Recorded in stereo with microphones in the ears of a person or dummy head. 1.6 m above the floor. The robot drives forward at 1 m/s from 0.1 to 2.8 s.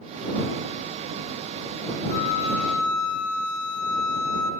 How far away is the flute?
About 0.9 m.